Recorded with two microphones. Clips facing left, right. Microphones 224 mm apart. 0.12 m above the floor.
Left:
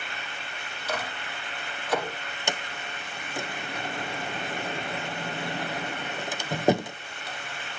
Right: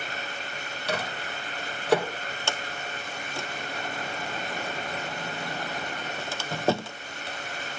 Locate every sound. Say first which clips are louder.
0.9 s a microwave: right 2 dB; 70° right (ahead or behind), 3 m
2.5 s a sliding door: left 2 dB; 15° left (ahead or behind), 0.6 m